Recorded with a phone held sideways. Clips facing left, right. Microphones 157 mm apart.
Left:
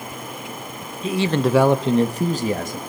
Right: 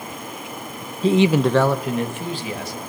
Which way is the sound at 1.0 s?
30° right (ahead or behind).